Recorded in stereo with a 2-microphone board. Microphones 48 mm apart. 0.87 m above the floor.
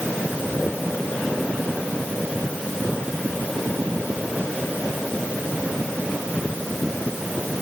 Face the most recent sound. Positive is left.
No sound to turn to.